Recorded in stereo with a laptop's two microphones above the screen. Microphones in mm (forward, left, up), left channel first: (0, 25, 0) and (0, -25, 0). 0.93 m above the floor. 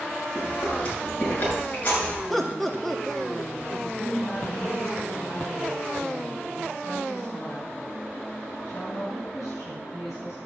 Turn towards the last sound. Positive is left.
turn(degrees=70)  # may be behind; listen again after turning